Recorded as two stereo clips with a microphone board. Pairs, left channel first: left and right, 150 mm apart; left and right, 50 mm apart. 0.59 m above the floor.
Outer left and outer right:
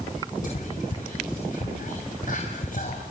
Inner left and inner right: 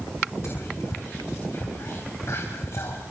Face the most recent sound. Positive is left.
turn(degrees=65)  # may be behind; listen again after turning